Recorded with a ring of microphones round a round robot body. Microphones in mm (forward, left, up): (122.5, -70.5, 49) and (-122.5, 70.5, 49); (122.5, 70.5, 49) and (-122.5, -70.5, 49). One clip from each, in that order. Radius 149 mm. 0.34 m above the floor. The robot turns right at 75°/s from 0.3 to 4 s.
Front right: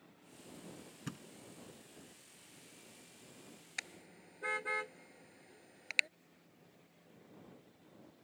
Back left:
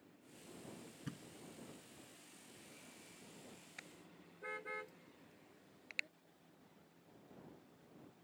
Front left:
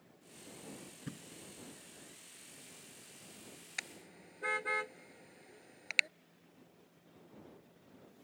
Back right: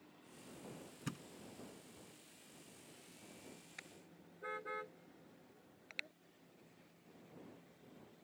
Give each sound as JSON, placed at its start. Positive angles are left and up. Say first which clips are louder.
{"t": 1.1, "sound": "a thud", "louder": "front right 5 dB, back right 3 dB", "azimuth_deg": -100}
{"t": 3.8, "sound": "a car horn", "louder": "front right 14 dB, front left 15 dB", "azimuth_deg": 0}